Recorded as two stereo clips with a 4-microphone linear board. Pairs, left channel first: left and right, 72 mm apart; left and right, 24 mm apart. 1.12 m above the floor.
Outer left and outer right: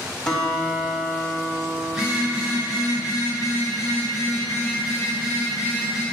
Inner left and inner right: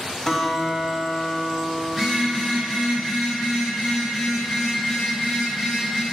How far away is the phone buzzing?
About 4 m.